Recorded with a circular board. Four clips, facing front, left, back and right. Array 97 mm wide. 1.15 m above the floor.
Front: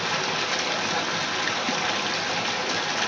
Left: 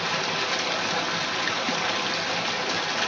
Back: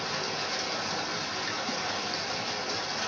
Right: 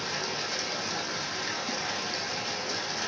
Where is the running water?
40° left, 0.7 m.